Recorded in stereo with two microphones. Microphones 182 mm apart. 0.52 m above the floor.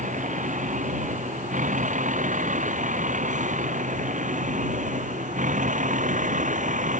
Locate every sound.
0.0 s a vehicle: 45° right (ahead or behind)